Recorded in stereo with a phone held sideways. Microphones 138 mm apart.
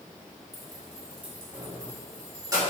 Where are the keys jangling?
Centre (ahead or behind), 1.5 m; by 2.6 s 25° right (ahead or behind), 2 m.